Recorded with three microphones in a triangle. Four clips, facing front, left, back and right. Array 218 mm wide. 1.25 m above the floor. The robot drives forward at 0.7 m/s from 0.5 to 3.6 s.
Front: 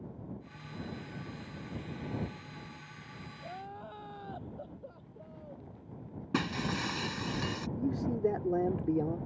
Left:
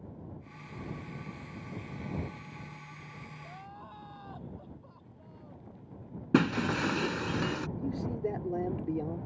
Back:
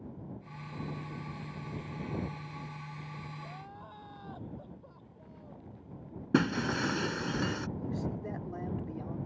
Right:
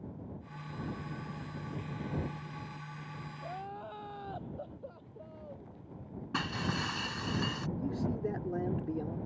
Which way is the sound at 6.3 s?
115° left.